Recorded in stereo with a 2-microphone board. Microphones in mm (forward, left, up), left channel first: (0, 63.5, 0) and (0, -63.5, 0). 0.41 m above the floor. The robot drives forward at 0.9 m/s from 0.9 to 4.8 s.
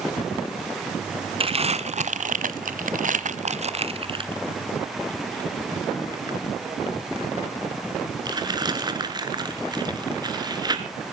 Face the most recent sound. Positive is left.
turn(degrees=-30)  # may be behind; listen again after turning